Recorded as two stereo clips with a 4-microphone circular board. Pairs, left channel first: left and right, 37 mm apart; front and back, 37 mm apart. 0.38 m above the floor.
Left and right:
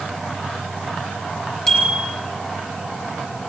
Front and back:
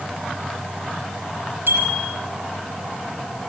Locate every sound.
1.7 s a bicycle bell: 170° left, 8.5 m